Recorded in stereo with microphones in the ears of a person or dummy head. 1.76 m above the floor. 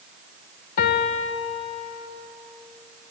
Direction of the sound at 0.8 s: 50° left (ahead or behind).